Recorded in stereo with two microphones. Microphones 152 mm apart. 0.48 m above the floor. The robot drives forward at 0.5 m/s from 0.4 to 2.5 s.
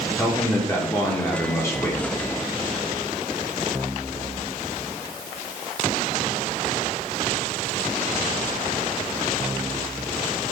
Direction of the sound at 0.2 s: 15° left (ahead or behind).